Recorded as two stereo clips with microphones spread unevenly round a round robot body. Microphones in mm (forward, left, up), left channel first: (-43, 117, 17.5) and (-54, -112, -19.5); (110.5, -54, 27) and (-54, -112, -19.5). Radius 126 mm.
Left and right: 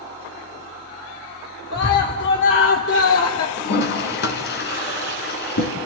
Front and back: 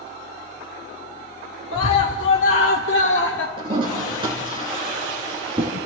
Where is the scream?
35° left, 2 m; by 3.5 s 60° left, 1.6 m.